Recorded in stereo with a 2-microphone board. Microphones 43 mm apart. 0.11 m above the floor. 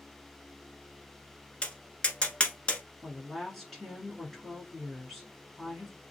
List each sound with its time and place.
1.6 s tapping: 25° left (ahead or behind), 1.1 m
3.0 s a woman speaking: 5° left (ahead or behind), 1.5 m